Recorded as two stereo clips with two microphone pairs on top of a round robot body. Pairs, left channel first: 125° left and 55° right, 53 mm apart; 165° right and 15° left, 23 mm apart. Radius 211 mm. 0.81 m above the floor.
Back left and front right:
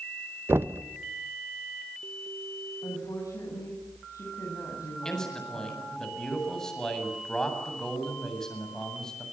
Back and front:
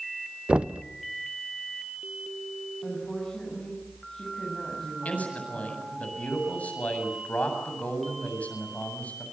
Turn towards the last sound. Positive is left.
turn(degrees=-155)